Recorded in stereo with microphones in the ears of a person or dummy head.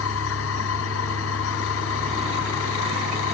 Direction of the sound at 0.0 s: 80° left.